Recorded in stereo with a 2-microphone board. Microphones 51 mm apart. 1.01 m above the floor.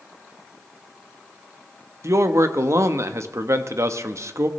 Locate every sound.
2.0 s a man speaking: 65° right (ahead or behind), 1.0 m